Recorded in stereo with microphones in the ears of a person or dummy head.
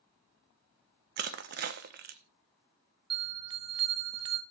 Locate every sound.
1.2 s crushing: 55° right (ahead or behind), 1.0 m
3.1 s a bell: 30° right (ahead or behind), 0.6 m